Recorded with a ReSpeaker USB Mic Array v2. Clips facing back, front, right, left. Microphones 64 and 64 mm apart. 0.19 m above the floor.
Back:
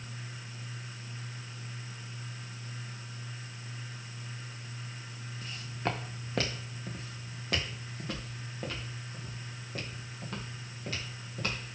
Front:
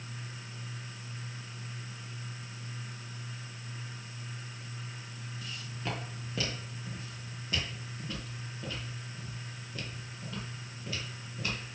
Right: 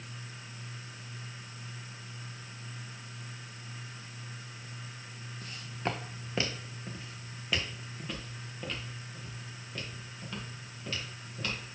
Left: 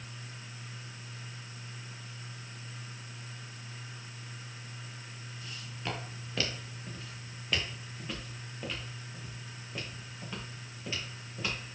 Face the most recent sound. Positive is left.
turn(degrees=160)